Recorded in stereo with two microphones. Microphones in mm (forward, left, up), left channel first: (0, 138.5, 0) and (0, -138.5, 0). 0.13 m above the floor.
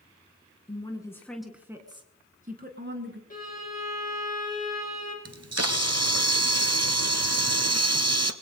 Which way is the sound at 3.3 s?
30° left (ahead or behind).